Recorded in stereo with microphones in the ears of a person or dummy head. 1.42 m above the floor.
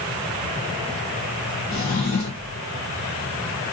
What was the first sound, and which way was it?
A drawer, 30° left (ahead or behind).